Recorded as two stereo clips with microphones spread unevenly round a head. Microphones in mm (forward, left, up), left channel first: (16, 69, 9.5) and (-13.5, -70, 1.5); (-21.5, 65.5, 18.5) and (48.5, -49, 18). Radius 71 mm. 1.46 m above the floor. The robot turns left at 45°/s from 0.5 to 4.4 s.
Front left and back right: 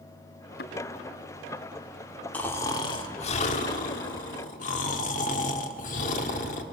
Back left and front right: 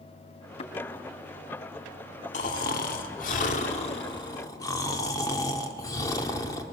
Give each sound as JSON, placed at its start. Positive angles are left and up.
{"t": 0.6, "sound": "a thud", "azimuth_deg": 80, "distance_m": 3.0}
{"t": 2.3, "sound": "snoring", "azimuth_deg": 155, "distance_m": 1.6}